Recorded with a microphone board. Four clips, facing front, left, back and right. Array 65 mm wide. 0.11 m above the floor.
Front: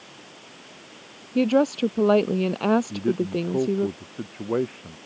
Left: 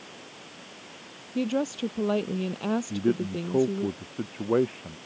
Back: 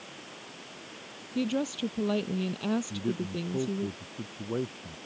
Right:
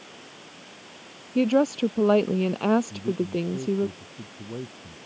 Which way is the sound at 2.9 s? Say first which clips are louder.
Left 1 dB, front 8 dB; 55° left.